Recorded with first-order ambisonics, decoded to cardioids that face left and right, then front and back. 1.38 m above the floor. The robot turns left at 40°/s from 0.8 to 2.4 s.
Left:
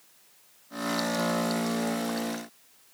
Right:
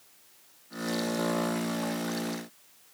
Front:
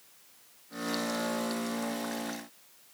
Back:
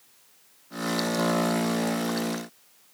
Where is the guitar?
I don't hear a guitar.